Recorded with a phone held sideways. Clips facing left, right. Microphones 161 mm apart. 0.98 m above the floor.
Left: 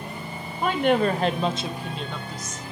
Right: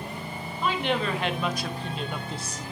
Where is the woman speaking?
55° left (ahead or behind), 1.6 m; by 2.6 s 40° right (ahead or behind), 1.0 m.